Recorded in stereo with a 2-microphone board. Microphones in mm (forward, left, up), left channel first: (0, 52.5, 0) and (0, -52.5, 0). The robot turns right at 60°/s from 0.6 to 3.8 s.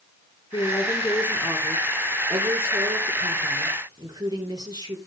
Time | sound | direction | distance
0.5 | a woman speaking | 125° left | 4 m